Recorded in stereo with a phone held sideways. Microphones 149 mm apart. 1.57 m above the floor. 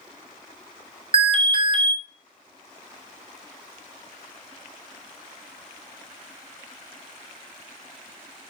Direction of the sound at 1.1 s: 35° right (ahead or behind).